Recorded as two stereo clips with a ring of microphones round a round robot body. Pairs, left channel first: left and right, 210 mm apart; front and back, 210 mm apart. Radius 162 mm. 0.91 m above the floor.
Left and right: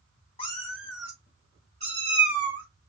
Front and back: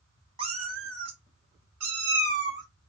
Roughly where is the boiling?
No boiling in this recording.